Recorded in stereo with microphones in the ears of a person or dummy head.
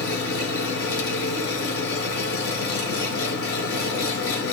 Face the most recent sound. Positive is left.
turn(degrees=75)  # may be behind; listen again after turning